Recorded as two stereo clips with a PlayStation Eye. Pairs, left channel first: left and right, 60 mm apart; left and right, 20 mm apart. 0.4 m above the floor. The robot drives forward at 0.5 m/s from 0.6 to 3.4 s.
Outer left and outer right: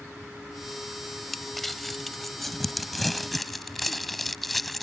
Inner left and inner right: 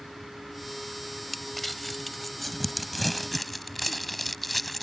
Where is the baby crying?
I don't hear a baby crying.